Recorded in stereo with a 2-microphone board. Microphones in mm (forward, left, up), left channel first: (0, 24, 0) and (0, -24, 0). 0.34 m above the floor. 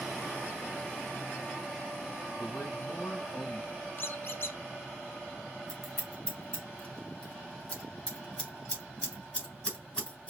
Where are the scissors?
30° left (ahead or behind), 2.5 m.